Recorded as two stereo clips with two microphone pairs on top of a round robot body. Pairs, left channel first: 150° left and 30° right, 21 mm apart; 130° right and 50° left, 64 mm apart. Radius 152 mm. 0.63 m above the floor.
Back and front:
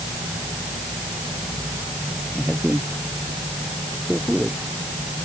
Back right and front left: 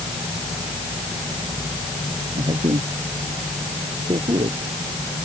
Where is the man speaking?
50° left.